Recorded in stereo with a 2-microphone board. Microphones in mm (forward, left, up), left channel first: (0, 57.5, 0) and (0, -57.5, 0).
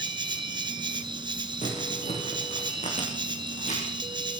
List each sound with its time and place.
0.0 s an insect: 45° right (ahead or behind), 1.6 m
1.6 s crumpling: 80° left, 8.5 m